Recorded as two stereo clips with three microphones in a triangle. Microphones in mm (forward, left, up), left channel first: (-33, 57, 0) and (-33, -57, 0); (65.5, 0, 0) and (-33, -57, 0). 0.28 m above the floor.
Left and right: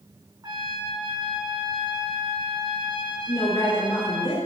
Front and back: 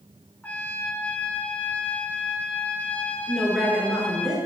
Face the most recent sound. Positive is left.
turn(degrees=125)